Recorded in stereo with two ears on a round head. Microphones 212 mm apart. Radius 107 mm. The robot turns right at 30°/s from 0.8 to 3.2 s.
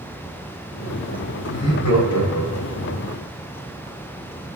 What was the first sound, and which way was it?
Laughter, 65° left.